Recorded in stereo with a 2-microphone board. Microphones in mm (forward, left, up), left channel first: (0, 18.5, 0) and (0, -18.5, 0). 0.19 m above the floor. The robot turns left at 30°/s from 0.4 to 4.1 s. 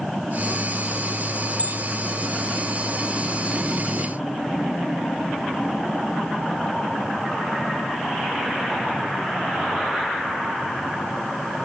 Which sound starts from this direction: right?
A bell, at 1.6 s.